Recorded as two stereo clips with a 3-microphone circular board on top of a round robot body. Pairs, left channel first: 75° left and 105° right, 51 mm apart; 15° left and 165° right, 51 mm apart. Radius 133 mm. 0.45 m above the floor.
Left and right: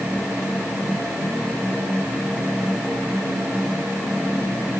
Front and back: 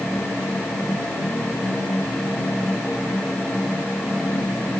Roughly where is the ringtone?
No ringtone in this recording.